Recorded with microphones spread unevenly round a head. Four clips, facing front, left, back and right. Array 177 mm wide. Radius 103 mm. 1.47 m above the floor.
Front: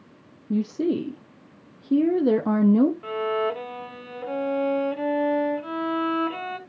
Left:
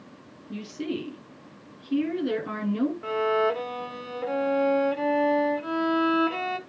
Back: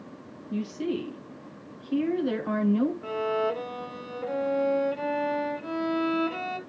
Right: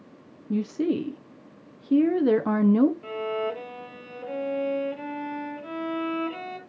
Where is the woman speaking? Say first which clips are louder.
Right 7 dB, front 6 dB; 35° right, 1.1 m.